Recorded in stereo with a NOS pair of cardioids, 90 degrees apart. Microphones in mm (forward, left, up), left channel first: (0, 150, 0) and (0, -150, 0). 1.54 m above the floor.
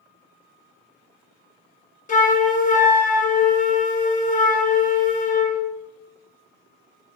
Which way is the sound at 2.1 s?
25° left.